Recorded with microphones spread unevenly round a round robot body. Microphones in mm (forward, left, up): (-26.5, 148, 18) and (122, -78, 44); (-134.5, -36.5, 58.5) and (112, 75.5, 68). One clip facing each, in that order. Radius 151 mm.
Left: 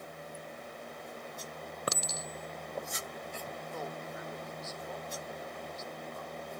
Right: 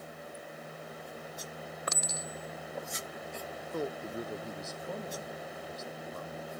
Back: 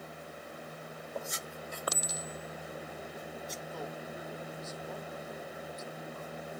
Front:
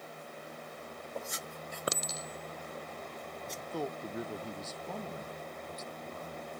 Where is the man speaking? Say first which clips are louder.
Right 9 dB, front 9 dB; 5° right.